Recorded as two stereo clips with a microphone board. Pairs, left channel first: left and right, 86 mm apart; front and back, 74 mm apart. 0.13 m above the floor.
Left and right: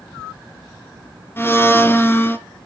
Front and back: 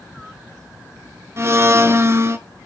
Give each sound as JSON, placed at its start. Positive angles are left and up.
{"t": 1.4, "sound": "a blender", "azimuth_deg": 145, "distance_m": 0.8}